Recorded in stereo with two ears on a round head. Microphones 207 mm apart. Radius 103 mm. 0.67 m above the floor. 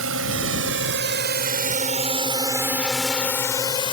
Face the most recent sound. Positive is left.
turn(degrees=25)  # may be behind; listen again after turning